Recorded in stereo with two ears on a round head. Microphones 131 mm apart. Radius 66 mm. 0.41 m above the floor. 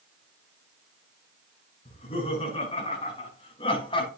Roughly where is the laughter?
Left.